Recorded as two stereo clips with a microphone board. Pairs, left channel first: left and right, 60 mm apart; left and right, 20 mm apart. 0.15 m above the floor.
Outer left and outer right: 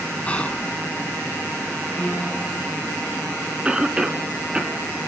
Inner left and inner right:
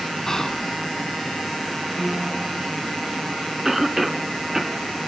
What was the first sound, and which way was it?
Whispering, 20° left (ahead or behind).